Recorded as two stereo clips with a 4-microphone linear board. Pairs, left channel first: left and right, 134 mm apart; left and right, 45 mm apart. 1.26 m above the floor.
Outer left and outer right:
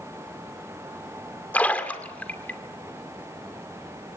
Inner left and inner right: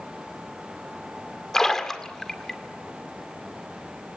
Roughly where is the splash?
Centre.